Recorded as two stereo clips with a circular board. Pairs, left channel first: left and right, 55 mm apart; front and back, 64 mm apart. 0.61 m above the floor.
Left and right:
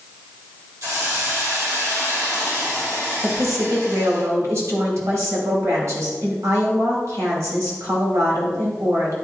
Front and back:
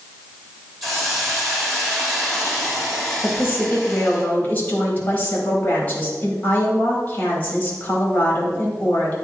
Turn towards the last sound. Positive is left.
turn(degrees=-65)